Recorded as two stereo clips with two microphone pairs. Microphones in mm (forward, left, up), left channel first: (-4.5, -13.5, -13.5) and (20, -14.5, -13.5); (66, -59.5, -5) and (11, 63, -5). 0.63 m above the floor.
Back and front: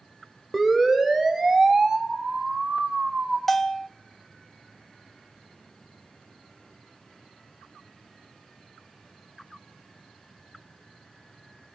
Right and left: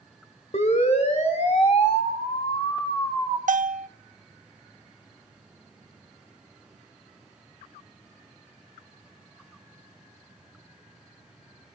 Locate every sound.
0.5 s a siren: 85° right, 3 m; by 3.4 s 10° right, 2.5 m
3.5 s a bell: 95° left, 0.5 m